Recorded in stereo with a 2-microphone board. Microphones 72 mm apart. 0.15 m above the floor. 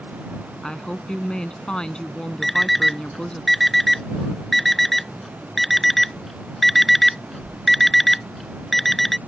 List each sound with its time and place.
0.6 s a woman speaking: 10° left (ahead or behind)
2.4 s an alarm clock: centre (ahead or behind)